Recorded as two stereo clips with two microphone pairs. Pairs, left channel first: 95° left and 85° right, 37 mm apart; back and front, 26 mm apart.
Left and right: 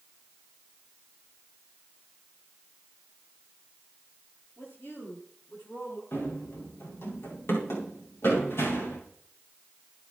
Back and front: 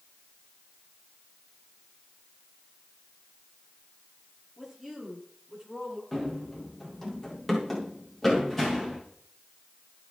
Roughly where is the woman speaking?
Left.